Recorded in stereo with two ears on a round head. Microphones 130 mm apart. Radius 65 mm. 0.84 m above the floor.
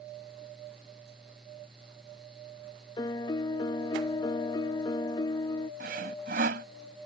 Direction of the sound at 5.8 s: 65° right (ahead or behind).